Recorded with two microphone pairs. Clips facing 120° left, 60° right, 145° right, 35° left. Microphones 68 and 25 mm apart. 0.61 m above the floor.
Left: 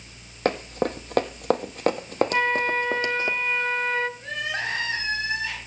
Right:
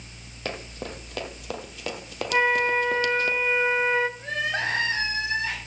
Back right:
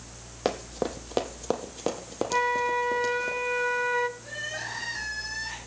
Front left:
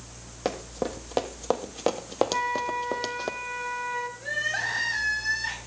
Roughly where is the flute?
Behind right.